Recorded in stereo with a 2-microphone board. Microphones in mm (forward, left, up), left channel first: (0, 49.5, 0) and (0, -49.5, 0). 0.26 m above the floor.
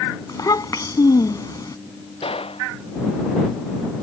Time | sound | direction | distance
0.3 | a child speaking | 40° left (ahead or behind) | ?
2.2 | a gunshot | 70° left (ahead or behind) | ?